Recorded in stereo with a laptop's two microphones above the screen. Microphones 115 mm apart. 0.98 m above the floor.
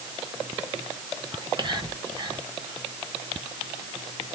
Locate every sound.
1.3 s whispering: 35° right (ahead or behind), 0.9 m